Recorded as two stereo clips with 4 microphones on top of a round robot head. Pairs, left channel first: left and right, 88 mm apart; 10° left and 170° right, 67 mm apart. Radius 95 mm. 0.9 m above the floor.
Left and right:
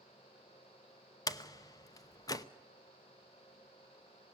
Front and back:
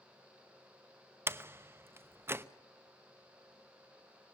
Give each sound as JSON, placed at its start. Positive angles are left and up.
{"t": 1.3, "sound": "a door slam", "azimuth_deg": 135, "distance_m": 0.9}